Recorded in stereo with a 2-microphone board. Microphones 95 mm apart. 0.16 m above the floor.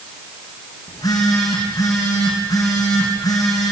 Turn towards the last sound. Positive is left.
turn(degrees=40)  # may be behind; listen again after turning